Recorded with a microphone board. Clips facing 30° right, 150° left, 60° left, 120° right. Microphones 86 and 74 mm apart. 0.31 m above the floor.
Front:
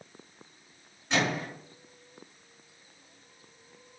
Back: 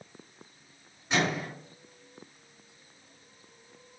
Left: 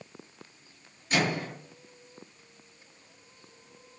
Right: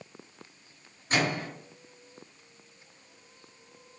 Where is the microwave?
135° right, 1.4 m.